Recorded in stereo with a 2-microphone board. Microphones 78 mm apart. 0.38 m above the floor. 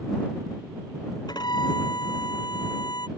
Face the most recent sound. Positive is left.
turn(degrees=60)  # may be behind; listen again after turning